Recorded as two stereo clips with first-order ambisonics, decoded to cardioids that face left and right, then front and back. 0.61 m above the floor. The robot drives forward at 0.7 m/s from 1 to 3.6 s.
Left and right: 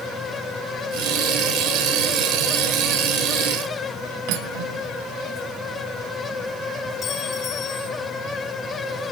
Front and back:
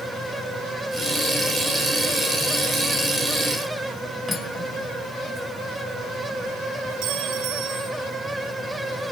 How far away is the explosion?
No explosion in this recording.